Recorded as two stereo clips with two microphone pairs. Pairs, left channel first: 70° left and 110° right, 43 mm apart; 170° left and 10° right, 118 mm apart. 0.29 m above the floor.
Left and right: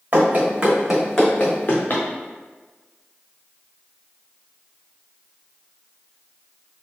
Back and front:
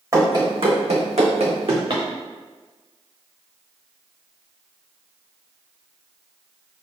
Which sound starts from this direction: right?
Running footsteps, at 0.1 s.